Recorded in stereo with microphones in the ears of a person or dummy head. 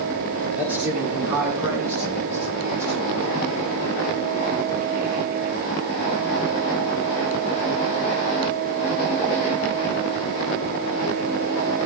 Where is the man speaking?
10° right (ahead or behind), 6 m; by 3.1 s 15° right (ahead or behind), 7.5 m.